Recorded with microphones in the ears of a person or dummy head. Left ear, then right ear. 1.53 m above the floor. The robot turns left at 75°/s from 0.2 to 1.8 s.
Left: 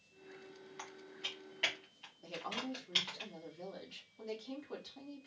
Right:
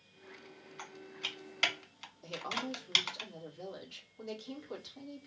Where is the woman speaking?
5° right (ahead or behind), 1.3 m.